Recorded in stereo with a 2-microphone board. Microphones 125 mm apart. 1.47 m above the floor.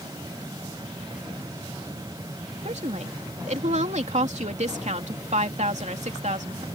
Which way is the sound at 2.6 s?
65° right (ahead or behind).